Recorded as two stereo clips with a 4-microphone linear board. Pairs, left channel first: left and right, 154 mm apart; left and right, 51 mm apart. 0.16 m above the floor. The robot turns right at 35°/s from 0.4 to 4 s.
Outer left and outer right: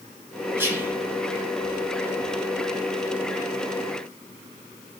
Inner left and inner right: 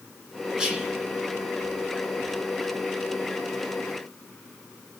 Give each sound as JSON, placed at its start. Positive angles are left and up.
{"t": 0.6, "sound": "whispering", "side_deg": -15, "distance_m": 1.0}